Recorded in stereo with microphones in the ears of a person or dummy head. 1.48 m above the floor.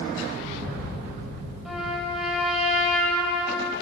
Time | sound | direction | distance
1.6 | a trumpet | centre (ahead or behind) | 2.5 m